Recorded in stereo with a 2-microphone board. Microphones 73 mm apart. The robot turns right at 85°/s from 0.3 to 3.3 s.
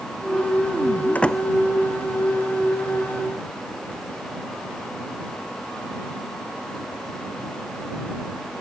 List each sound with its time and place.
1.1 s a door slam: 20° left (ahead or behind); by 1.4 s centre (ahead or behind)